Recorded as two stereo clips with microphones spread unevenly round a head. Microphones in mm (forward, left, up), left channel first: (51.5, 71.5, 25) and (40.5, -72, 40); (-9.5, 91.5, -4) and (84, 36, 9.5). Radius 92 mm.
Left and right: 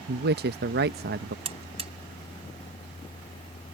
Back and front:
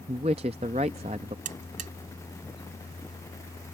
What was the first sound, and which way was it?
A man speaking, 85° right.